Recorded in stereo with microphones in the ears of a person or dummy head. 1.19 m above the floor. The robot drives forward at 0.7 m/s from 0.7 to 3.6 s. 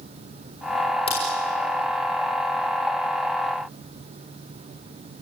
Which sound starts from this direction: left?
A crack, at 1.1 s.